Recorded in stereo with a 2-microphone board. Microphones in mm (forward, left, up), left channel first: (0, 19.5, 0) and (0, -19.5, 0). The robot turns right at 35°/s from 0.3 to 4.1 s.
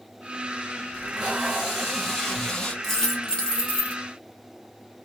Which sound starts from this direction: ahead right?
Tape being pulled, at 0.9 s.